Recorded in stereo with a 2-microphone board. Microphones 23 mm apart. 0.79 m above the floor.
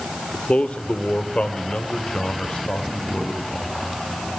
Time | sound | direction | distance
0.3 | a man speaking | 60° left (ahead or behind) | 1.7 m